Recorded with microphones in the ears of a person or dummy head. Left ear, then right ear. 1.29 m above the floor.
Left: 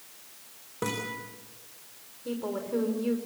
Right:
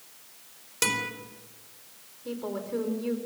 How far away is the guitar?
About 4 m.